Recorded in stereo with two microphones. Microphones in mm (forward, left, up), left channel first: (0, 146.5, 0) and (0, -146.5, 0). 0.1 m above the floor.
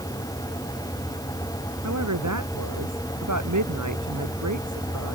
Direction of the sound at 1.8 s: 75° right (ahead or behind).